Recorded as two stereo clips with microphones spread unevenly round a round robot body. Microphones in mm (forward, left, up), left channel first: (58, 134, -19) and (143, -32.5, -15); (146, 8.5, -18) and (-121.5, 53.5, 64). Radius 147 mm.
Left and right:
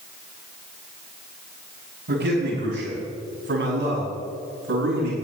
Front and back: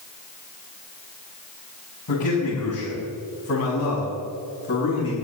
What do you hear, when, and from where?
2.1 s a man speaking: 40° right, 5.5 m; by 5.2 s 65° right, 7.5 m